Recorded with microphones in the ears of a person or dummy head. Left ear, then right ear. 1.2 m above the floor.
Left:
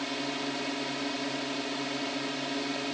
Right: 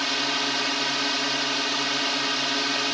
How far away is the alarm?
No alarm in this recording.